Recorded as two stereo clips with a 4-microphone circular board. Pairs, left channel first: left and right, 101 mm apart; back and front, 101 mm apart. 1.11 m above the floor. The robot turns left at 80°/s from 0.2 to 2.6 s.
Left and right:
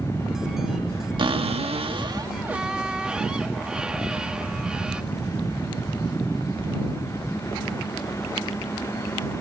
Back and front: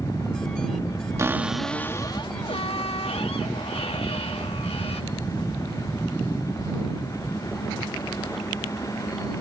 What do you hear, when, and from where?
1.2 s a cupboard door: 60° right; by 5.0 s 170° right